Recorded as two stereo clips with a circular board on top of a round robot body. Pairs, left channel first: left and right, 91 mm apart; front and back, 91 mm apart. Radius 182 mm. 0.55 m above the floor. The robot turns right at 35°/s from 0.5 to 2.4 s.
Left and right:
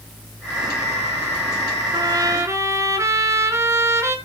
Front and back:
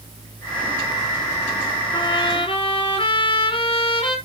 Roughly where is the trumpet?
Ahead right.